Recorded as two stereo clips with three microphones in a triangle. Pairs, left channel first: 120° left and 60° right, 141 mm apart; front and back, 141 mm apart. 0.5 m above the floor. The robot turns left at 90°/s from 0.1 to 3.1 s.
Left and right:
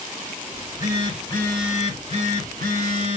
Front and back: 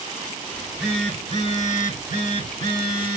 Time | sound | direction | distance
0.5 | a phone buzzing | 125° left | 2.5 m